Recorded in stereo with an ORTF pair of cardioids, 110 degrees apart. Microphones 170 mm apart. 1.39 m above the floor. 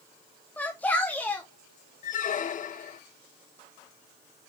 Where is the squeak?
50° left, 1.0 m.